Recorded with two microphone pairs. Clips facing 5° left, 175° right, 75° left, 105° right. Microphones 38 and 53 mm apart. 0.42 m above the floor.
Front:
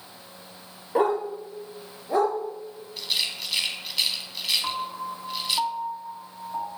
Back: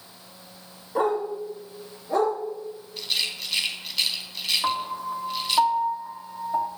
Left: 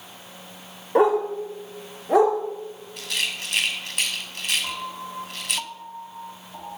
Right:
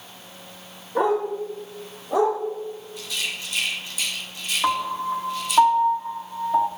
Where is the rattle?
90° left, 2 m.